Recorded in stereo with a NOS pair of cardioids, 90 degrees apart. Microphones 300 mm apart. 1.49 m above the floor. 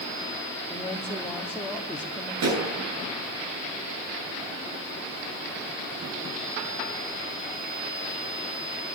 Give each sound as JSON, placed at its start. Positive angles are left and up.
{"t": 0.7, "sound": "a woman speaking", "azimuth_deg": 5, "distance_m": 3.0}
{"t": 2.4, "sound": "a pop", "azimuth_deg": -60, "distance_m": 9.5}